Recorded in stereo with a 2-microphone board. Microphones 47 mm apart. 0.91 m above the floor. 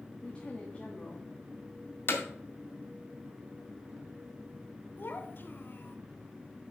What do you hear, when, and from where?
0.2 s a woman speaking: 20° left (ahead or behind), 1.3 m
2.1 s hammering: 50° left (ahead or behind), 1.7 m
5.0 s a child speaking: 50° left (ahead or behind), 1.1 m